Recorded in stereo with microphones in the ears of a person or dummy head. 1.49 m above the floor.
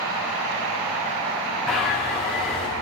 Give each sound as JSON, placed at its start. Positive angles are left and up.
{"t": 1.7, "sound": "a bird", "side_deg": 5, "distance_m": 2.5}